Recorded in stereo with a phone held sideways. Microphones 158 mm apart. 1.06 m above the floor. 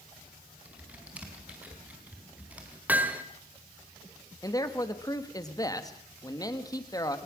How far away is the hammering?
About 1.6 m.